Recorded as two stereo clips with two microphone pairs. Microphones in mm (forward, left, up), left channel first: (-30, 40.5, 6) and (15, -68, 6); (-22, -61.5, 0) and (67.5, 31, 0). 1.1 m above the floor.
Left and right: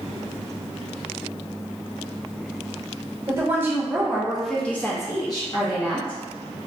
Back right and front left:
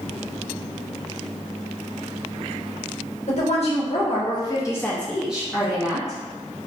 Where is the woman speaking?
130° right, 1.1 m; by 6.2 s 95° left, 0.9 m.